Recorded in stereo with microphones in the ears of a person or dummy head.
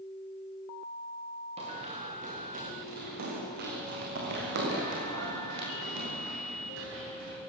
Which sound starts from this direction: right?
Running footsteps, at 1.6 s.